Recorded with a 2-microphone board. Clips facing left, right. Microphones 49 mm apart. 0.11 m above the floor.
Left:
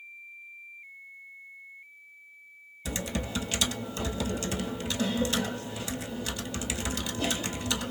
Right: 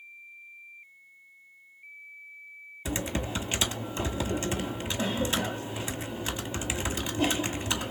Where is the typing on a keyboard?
25° right (ahead or behind), 1.0 m.